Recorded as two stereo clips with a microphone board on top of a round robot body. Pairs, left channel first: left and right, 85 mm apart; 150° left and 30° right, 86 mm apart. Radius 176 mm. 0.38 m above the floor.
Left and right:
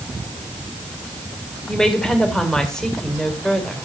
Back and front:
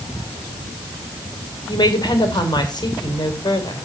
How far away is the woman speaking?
About 3 m.